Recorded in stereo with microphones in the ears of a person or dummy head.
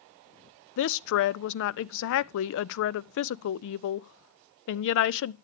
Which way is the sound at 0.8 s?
70° left (ahead or behind).